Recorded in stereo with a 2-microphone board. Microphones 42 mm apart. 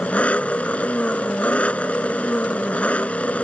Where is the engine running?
30° left (ahead or behind).